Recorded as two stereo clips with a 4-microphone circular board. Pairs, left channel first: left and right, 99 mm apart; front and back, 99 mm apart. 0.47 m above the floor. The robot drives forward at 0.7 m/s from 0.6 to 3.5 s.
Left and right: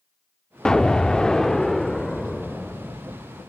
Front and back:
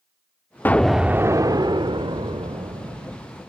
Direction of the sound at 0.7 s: 20° left.